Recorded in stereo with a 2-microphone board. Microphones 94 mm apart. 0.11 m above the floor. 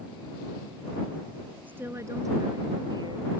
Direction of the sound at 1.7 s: 20° right (ahead or behind).